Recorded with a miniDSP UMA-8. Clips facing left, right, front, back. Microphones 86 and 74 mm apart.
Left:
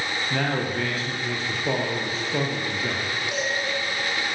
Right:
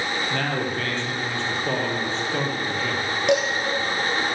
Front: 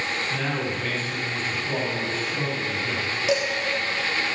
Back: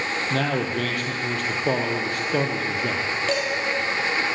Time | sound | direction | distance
0.3 | a man speaking | 175° left | 3.5 m
3.3 | dishes clattering | 80° right | 3 m